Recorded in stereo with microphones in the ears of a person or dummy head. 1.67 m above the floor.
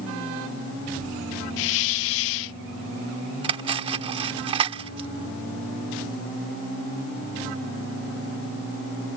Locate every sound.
1.6 s a hiss: 65° left (ahead or behind)
3.4 s cutlery clinking: 30° right (ahead or behind)